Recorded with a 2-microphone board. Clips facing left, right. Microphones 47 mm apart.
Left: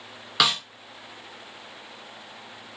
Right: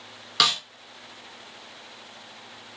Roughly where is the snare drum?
Centre.